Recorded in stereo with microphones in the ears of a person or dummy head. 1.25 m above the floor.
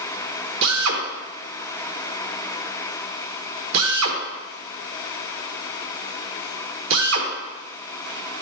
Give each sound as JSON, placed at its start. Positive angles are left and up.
{"t": 0.6, "sound": "a drill", "side_deg": -70, "distance_m": 1.2}